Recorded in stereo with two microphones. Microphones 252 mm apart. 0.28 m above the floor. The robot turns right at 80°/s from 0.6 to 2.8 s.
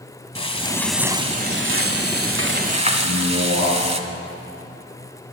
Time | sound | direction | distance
0.3 | frying | 155° left | 1.0 m
3.0 | a man speaking | 45° right (ahead or behind) | 7 m